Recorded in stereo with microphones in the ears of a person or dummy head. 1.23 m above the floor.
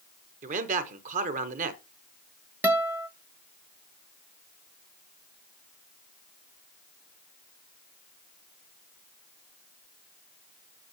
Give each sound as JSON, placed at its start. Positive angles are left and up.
{"t": 0.4, "sound": "a man speaking", "side_deg": -40, "distance_m": 1.0}
{"t": 2.6, "sound": "a guitar", "side_deg": -10, "distance_m": 0.8}